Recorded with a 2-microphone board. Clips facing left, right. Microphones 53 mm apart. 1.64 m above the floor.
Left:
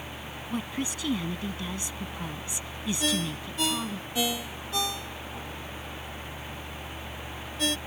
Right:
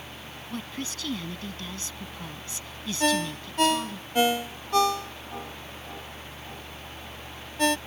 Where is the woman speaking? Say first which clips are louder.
Left 3 dB; 15° left (ahead or behind).